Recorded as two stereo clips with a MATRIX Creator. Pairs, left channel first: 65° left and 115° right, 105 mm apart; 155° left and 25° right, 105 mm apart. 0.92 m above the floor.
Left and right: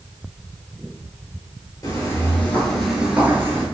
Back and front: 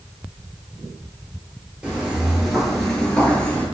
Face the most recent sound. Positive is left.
turn(degrees=-140)